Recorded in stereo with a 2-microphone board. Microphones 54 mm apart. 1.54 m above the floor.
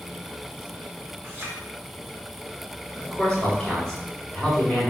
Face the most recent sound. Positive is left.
turn(degrees=5)  # may be behind; listen again after turning